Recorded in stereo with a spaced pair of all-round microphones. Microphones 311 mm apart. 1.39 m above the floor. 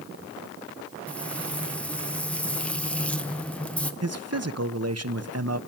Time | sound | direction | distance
1.1 | frying | 5° left (ahead or behind) | 1.2 m
4.0 | a man speaking | 55° right (ahead or behind) | 1.1 m